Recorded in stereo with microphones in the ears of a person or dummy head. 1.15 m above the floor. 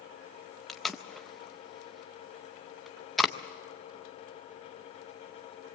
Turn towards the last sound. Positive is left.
turn(degrees=0)  # may be behind; listen again after turning